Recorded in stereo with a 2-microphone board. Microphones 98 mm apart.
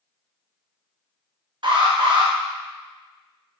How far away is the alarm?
About 2.5 m.